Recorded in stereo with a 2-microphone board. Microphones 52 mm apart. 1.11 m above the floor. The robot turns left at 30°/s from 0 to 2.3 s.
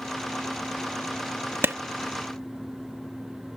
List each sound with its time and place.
1.6 s a clap: 50° right (ahead or behind); by 1.8 s 55° right (ahead or behind)